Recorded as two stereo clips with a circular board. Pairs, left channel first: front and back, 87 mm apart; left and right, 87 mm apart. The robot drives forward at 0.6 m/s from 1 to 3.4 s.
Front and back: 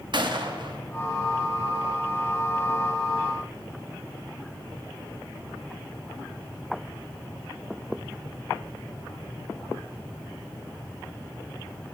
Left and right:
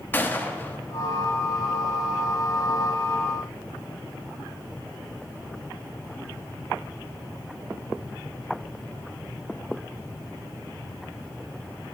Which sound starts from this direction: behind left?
A gunshot, at 0.1 s.